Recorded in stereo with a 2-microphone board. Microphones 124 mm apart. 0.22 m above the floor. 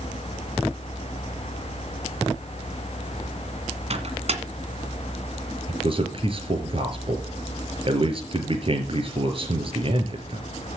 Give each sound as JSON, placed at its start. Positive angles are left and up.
{"t": 3.9, "sound": "a microwave", "side_deg": -55, "distance_m": 1.8}
{"t": 5.7, "sound": "a man speaking", "side_deg": -45, "distance_m": 3.5}